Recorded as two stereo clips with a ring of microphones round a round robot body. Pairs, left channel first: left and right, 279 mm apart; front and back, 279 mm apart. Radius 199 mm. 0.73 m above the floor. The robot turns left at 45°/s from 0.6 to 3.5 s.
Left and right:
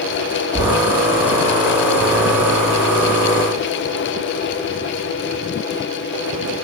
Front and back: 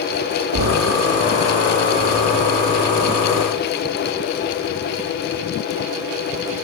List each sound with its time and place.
0.5 s knocking: 160° left, 1.4 m; by 0.9 s 145° left, 1.4 m